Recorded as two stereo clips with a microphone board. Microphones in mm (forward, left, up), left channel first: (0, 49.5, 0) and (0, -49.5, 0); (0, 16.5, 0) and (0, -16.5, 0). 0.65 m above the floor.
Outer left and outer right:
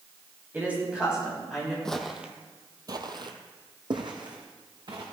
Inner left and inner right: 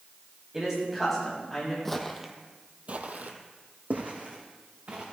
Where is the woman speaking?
20° right (ahead or behind), 5 m; by 1.8 s 5° left (ahead or behind), 5 m.